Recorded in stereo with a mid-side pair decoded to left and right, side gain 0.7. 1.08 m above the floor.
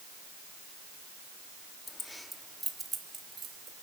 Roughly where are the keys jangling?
Ahead.